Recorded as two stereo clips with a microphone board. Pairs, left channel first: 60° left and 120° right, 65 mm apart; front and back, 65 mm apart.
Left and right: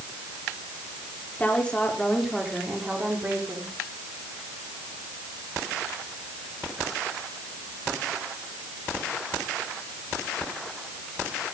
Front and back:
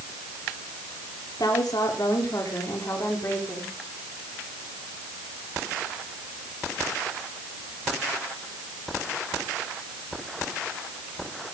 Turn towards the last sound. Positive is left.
turn(degrees=-60)